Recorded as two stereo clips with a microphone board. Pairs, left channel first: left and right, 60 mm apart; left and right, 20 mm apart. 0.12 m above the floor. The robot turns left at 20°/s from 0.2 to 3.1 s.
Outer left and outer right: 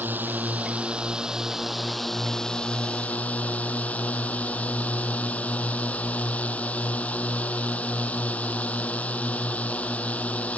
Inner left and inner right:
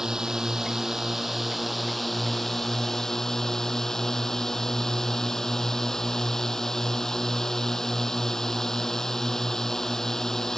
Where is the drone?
145° right; by 10.6 s 155° left.